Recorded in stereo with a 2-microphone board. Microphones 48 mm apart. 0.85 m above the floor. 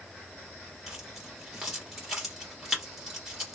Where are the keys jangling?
5° right (ahead or behind), 1.8 m.